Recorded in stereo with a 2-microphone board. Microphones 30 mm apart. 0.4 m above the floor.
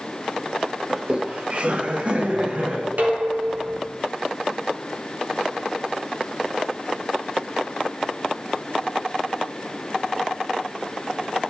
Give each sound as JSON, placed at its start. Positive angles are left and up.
{"t": 0.9, "sound": "laughter", "side_deg": -30, "distance_m": 0.9}
{"t": 3.0, "sound": "dishes clattering", "side_deg": -80, "distance_m": 3.0}